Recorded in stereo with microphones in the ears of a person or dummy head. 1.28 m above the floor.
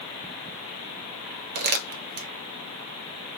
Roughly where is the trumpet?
I don't hear a trumpet.